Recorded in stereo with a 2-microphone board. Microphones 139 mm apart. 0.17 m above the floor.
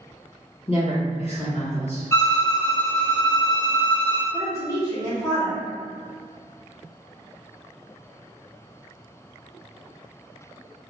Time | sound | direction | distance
0.7 | a woman speaking | 50° left (ahead or behind) | 1.9 m
2.1 | a violin | 20° left (ahead or behind) | 1.0 m
4.3 | a woman speaking | 20° left (ahead or behind) | 1.2 m